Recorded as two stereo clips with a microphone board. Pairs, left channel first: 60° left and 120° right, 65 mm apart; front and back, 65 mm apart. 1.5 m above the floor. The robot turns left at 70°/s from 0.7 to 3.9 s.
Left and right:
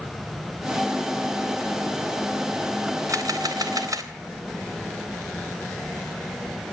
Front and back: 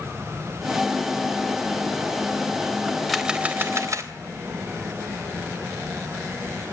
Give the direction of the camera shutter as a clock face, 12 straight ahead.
3 o'clock.